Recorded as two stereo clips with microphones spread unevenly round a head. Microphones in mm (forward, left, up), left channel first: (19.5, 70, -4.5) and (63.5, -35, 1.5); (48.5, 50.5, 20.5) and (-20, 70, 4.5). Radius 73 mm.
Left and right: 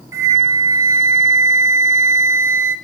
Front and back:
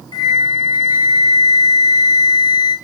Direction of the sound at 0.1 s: 5° right.